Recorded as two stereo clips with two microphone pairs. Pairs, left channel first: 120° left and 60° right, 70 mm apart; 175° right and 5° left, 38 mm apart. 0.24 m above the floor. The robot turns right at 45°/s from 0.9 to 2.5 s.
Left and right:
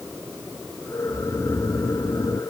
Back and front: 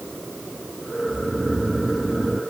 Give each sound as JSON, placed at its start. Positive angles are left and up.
{"t": 1.1, "sound": "snoring", "azimuth_deg": 55}